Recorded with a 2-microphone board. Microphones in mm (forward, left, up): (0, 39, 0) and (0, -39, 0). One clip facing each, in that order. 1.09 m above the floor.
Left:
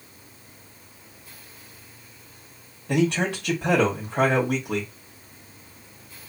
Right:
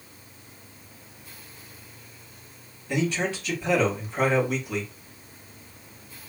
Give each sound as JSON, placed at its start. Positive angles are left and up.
{"t": 2.9, "sound": "a man speaking", "side_deg": 60, "distance_m": 2.0}